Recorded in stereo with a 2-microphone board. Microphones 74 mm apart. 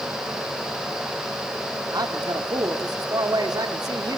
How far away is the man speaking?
About 1.9 m.